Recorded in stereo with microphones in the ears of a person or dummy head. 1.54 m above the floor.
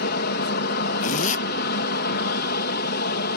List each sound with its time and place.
0.0 s an aircraft: 55° left (ahead or behind)
1.0 s a zipper: 50° left (ahead or behind)